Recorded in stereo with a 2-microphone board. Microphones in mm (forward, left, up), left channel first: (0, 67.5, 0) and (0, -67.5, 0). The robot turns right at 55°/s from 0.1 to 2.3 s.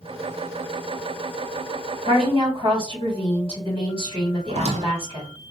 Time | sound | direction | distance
2.0 | a woman speaking | 55° right (ahead or behind) | 1.8 m
4.5 | a squeak | 50° right (ahead or behind) | 0.5 m